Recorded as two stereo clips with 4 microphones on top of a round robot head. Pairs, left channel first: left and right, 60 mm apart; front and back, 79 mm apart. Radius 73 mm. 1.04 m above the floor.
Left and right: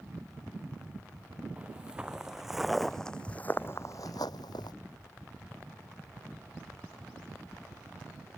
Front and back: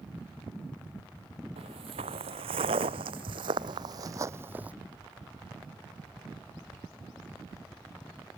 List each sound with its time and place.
1.6 s footsteps: 170° right; by 4.7 s 110° left